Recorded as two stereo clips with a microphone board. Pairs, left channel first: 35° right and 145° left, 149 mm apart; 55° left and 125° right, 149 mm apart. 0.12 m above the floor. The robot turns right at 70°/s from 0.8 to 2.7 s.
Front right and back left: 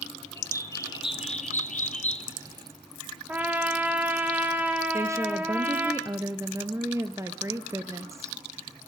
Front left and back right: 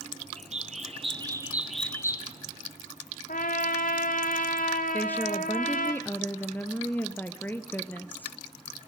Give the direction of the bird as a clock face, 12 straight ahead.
3 o'clock.